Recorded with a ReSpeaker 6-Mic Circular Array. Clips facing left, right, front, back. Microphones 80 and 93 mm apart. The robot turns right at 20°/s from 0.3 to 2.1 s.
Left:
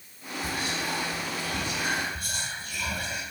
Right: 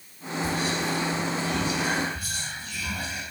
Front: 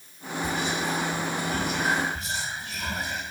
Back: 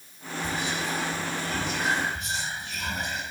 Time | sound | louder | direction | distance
0.4 | whispering | right 4 dB, front 2 dB | 55° left | 2 m